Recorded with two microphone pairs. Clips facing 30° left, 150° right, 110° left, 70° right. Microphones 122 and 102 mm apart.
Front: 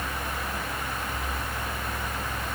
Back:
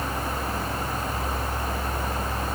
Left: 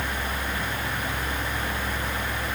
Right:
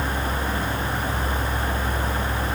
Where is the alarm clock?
No alarm clock in this recording.